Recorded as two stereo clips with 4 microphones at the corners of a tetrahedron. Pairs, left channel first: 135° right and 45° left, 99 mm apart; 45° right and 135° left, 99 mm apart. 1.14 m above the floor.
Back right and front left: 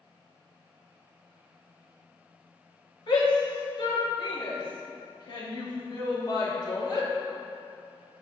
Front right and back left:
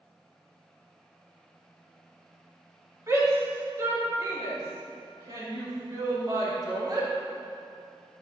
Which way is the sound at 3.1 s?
170° right.